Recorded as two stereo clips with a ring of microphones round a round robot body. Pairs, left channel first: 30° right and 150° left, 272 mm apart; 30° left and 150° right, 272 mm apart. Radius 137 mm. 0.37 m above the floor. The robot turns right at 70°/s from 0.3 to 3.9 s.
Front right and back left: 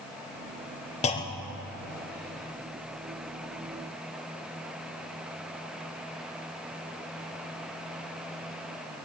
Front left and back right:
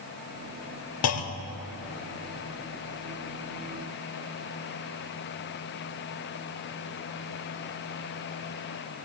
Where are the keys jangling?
I don't hear keys jangling.